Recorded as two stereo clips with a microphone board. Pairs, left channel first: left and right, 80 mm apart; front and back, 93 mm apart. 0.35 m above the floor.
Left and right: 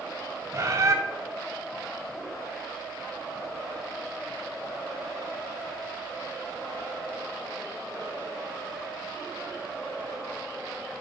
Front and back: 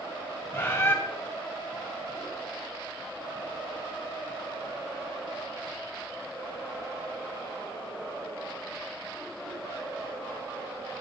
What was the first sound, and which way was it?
A bird, 60° right.